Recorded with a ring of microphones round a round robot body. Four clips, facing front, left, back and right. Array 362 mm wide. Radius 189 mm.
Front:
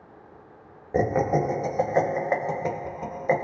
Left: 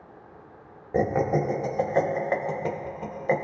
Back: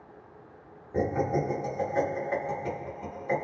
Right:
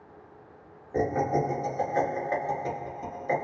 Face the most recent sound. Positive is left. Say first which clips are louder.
# left 2 dB, front 5 dB
turn(degrees=35)